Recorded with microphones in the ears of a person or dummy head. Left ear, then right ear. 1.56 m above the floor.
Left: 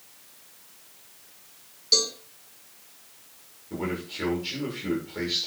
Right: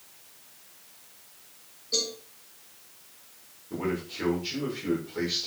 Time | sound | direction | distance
1.9 | a cowbell | 65° left (ahead or behind) | 4.5 m
3.7 | a man speaking | 5° left (ahead or behind) | 6 m